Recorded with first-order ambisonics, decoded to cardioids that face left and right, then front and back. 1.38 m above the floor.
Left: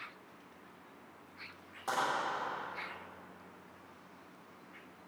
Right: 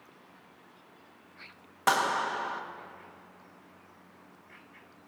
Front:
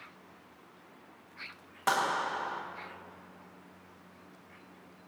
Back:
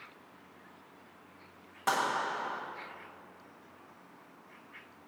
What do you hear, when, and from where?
1.9 s a clap: 80° right, 1.3 m